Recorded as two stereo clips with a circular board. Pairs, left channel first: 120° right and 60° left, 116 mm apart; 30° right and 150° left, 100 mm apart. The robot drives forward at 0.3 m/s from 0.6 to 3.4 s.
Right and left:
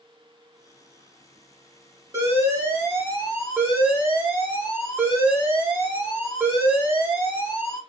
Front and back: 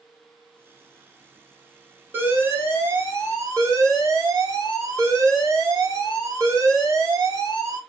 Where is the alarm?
100° left, 1.5 m; by 7.8 s 125° left, 1.6 m.